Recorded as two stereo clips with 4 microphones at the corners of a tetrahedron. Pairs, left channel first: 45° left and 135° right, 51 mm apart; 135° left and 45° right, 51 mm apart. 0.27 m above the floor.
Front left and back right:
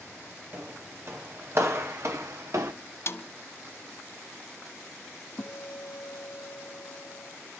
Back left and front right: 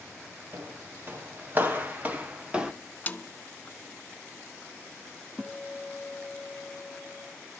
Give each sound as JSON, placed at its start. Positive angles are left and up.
{"t": 0.5, "sound": "footsteps", "azimuth_deg": -95, "distance_m": 5.0}
{"t": 3.1, "sound": "a snare drum", "azimuth_deg": 75, "distance_m": 1.1}
{"t": 5.4, "sound": "a guitar", "azimuth_deg": 50, "distance_m": 1.1}